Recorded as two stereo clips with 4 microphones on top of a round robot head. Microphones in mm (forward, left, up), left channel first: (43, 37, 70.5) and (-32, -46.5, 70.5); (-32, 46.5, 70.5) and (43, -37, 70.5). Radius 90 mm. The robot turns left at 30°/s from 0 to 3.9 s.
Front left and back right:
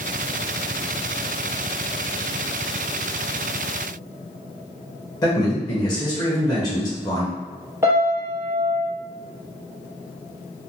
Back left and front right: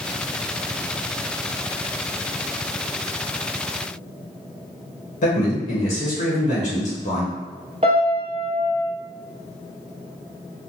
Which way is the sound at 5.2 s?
110° left.